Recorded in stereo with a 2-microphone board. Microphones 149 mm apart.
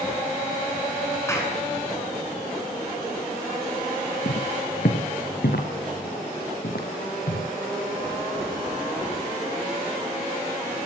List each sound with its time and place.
1.3 s a clap: 20° left (ahead or behind), 7.5 m
4.2 s footsteps: 80° left, 4 m